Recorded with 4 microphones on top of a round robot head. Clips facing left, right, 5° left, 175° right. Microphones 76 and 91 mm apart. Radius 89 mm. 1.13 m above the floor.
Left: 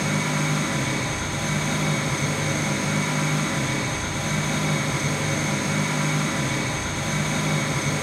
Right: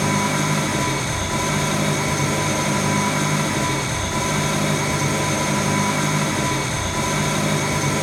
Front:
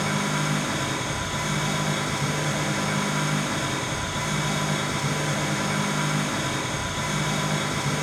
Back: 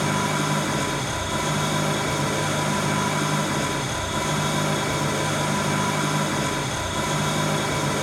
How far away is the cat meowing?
I don't hear a cat meowing.